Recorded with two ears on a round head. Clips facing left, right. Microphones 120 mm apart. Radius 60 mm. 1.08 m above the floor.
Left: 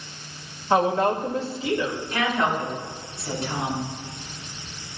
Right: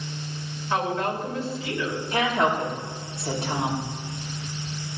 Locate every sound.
0.7 s a woman speaking: 30° left (ahead or behind), 2 m
2.1 s a woman speaking: 25° right (ahead or behind), 2.5 m